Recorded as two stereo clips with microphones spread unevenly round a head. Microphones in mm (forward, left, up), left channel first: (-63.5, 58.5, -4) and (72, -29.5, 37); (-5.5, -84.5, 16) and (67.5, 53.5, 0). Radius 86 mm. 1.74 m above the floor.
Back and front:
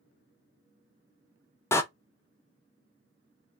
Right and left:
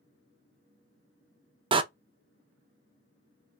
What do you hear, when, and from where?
1.7 s a door slam: 60° left, 0.7 m